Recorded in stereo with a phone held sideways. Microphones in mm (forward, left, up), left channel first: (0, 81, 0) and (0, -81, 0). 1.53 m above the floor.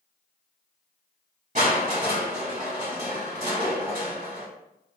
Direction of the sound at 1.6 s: 50° right (ahead or behind).